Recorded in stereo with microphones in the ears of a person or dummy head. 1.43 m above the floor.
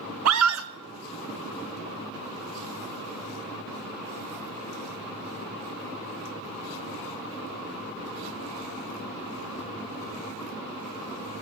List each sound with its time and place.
0.2 s a scream: 75° right (ahead or behind), 0.9 m